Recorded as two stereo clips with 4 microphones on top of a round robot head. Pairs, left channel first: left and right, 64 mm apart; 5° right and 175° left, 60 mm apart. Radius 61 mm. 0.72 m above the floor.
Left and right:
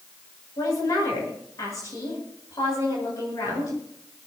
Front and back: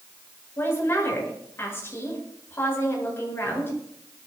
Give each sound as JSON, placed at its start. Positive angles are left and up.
{"t": 0.6, "sound": "a woman speaking", "azimuth_deg": 45, "distance_m": 9.0}